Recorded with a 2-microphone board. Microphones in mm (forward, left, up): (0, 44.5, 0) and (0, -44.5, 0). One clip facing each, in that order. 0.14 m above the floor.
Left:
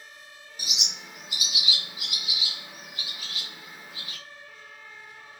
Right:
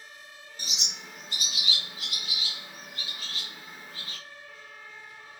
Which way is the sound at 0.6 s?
10° left (ahead or behind).